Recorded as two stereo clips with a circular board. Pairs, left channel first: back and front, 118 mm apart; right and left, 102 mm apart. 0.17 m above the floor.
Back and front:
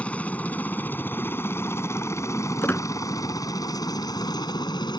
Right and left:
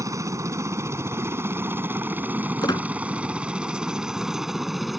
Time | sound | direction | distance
0.0 | a helicopter | 110° left | ?
2.6 | a squeak | 115° right | ?